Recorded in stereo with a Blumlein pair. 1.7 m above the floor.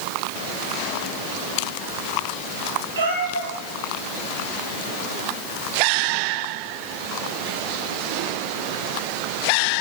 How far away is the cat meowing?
About 7.5 m.